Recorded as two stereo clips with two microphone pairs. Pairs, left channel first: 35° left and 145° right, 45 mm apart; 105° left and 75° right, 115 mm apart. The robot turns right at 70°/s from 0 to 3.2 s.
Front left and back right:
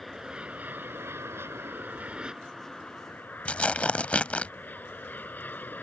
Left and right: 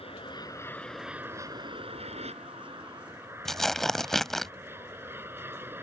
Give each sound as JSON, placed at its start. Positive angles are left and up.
{"t": 0.0, "sound": "an aircraft", "azimuth_deg": 125}
{"t": 3.5, "sound": "tearing paper", "azimuth_deg": 20}